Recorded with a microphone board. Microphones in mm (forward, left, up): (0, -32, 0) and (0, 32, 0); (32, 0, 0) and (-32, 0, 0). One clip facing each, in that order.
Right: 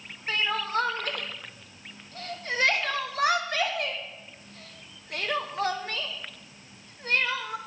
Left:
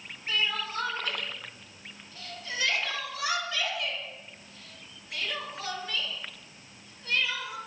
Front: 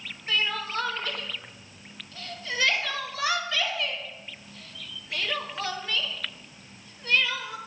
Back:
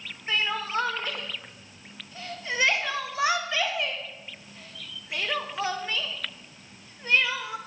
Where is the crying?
115° right, 0.6 m.